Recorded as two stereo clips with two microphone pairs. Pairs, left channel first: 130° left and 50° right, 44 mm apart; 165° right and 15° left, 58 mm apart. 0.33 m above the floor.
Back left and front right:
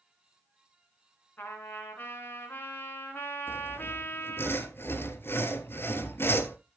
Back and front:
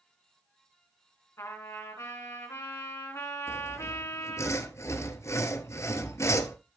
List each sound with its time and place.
1.4 s a trumpet: 170° left, 3.5 m
3.5 s sawing: 160° left, 1.0 m